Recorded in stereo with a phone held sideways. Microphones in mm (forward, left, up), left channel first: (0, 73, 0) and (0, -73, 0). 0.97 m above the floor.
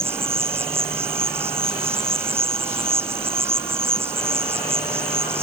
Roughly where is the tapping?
I don't hear tapping.